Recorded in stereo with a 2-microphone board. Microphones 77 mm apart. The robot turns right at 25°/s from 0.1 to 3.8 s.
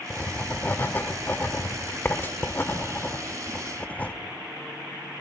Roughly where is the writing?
Centre.